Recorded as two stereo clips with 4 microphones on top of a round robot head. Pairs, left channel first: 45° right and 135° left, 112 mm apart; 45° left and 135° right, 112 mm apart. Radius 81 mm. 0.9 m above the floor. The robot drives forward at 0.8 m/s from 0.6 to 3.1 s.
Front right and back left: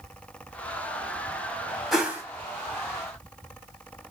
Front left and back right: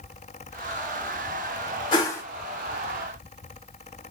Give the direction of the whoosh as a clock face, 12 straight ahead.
10 o'clock.